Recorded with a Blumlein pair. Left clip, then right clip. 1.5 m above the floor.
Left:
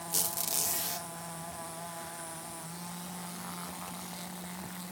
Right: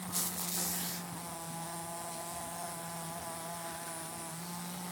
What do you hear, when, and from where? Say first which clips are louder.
0.1 s a squeak: left 4 dB; 30° left, 3 m